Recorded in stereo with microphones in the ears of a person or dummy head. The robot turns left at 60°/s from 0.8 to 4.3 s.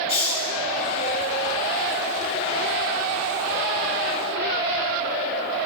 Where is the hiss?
30° left (ahead or behind), 6 m.